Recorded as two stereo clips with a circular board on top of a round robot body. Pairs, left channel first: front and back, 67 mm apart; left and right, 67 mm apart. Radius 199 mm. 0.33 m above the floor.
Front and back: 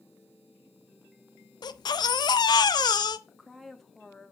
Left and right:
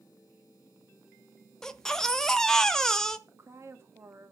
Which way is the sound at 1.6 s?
5° left.